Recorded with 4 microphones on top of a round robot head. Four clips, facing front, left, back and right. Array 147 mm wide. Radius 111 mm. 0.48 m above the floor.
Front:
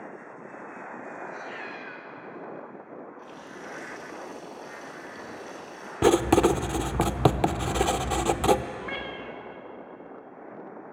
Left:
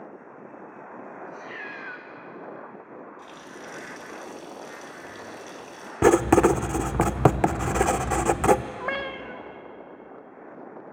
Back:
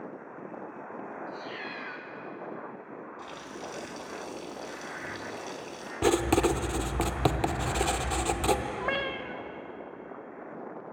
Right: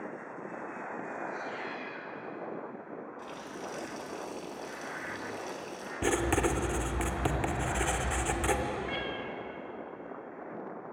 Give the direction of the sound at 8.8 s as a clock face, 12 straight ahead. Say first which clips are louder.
Left 5 dB, back 4 dB; 8 o'clock.